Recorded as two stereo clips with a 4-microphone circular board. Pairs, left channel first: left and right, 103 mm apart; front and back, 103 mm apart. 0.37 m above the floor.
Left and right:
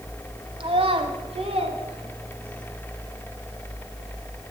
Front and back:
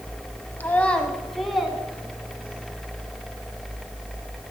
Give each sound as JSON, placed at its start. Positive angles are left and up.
{"t": 0.6, "sound": "a child speaking", "azimuth_deg": -70, "distance_m": 1.2}